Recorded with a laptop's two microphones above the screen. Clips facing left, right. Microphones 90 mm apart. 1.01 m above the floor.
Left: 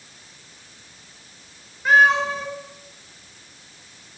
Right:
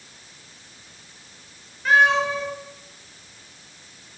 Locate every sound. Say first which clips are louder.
1.9 s a cat meowing: left 2 dB; 10° left (ahead or behind), 6 m